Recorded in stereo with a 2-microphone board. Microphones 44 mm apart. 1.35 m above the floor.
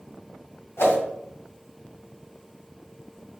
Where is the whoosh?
75° left (ahead or behind), 2.5 m.